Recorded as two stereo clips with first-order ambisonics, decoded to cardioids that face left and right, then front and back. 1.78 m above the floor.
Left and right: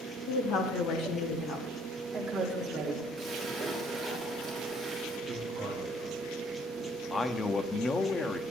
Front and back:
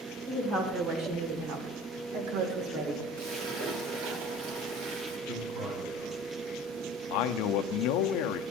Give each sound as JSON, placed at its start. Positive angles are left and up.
{"t": 0.3, "sound": "a woman speaking", "azimuth_deg": 115, "distance_m": 2.5}
{"t": 3.2, "sound": "a splash", "azimuth_deg": -170, "distance_m": 3.0}
{"t": 5.3, "sound": "a man speaking", "azimuth_deg": -145, "distance_m": 2.5}
{"t": 7.1, "sound": "a man speaking", "azimuth_deg": 10, "distance_m": 0.5}